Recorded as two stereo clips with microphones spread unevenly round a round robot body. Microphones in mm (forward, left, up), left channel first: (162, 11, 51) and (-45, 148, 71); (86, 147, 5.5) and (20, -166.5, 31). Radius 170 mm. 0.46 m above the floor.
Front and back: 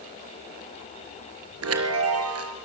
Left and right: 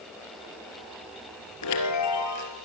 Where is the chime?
125° left, 3.5 m.